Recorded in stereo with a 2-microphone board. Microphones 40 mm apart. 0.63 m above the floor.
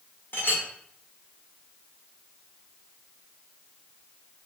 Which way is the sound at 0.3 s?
70° left (ahead or behind).